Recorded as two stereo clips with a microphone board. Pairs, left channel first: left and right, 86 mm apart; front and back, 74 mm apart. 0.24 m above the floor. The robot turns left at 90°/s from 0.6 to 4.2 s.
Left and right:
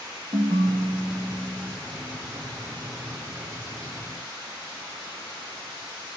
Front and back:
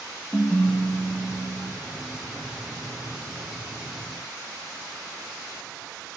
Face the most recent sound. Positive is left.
turn(degrees=-55)